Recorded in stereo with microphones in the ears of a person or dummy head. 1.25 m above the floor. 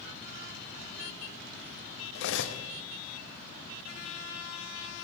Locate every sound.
2.1 s cutlery clinking: 65° left (ahead or behind), 1.0 m